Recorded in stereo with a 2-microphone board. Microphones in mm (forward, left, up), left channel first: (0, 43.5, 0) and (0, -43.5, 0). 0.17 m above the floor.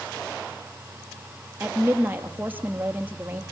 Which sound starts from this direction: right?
A woman speaking, at 1.6 s.